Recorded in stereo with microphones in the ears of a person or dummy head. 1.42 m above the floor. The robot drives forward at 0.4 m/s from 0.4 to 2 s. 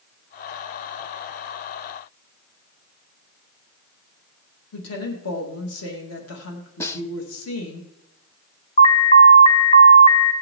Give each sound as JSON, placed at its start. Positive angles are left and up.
{"t": 4.7, "sound": "a woman speaking", "side_deg": 85, "distance_m": 1.8}
{"t": 6.8, "sound": "a snare drum", "side_deg": 15, "distance_m": 0.7}
{"t": 8.8, "sound": "an alarm", "side_deg": 35, "distance_m": 0.7}